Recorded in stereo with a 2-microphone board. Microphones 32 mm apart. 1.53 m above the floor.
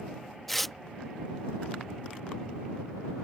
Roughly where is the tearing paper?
Centre.